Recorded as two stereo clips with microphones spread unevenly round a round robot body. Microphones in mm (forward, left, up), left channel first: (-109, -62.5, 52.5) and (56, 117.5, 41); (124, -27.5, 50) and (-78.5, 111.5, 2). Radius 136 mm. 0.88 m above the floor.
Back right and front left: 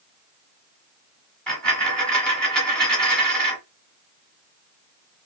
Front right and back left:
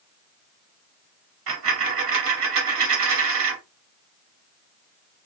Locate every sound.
1.5 s a dropped coin: 150° left, 0.8 m